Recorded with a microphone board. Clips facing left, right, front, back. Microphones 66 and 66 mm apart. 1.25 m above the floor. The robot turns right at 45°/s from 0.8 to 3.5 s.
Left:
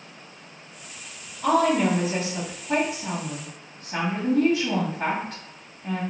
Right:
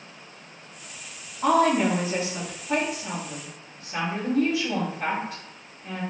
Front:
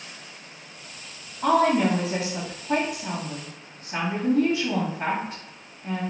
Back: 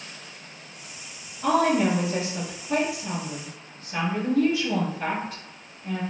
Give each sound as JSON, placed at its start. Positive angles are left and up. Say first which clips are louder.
{"t": 1.4, "sound": "a woman speaking", "louder": "even, front 1 dB", "azimuth_deg": -45, "distance_m": 2.0}